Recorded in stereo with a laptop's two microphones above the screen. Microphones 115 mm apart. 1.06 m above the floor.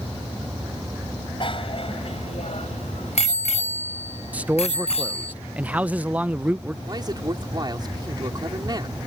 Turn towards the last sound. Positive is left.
turn(degrees=-40)  # may be behind; listen again after turning